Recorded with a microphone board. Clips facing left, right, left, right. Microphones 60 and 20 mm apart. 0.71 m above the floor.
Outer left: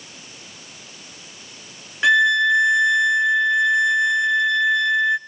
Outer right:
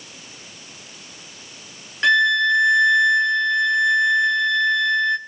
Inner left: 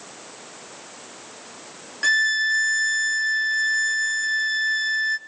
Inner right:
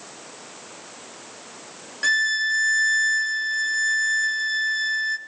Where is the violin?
5° left (ahead or behind), 0.7 m.